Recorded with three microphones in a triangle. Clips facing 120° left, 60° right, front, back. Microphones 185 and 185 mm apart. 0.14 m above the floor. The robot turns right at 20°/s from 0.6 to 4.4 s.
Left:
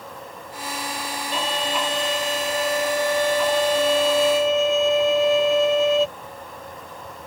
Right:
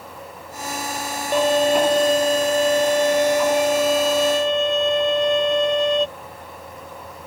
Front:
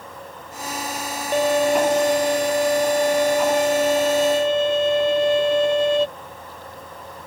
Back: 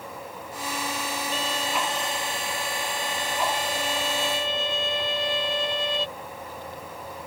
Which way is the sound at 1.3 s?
25° right.